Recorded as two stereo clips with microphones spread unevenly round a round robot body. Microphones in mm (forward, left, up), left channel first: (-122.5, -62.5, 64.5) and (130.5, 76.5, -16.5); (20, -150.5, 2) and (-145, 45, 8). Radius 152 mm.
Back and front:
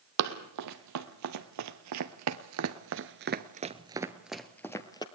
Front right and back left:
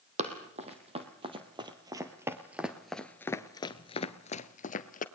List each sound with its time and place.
0.2 s running footsteps: 65° left, 2 m; by 5.0 s 95° right, 1.3 m